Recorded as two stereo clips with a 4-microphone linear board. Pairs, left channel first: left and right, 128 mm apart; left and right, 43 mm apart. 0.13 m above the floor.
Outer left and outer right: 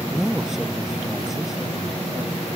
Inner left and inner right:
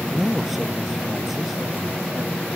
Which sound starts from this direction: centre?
A man speaking, at 0.1 s.